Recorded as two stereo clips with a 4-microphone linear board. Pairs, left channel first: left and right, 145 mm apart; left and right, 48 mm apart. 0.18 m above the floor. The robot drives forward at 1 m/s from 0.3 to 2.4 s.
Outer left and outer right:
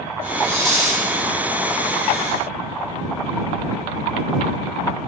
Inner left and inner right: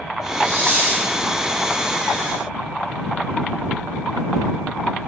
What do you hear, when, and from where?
0.4 s a hiss: 45° right (ahead or behind), 3 m; by 1.1 s 55° right (ahead or behind), 2.5 m